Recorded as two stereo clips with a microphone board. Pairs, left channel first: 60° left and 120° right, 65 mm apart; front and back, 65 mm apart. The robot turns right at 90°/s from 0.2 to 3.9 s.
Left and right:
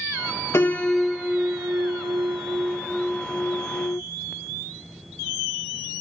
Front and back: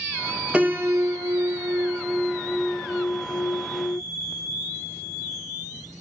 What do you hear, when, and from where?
0.5 s a piano: 105° left, 0.6 m; by 4.0 s 50° left, 0.6 m